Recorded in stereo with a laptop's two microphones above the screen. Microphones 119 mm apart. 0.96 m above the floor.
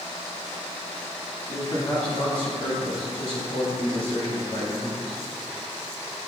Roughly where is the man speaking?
Left.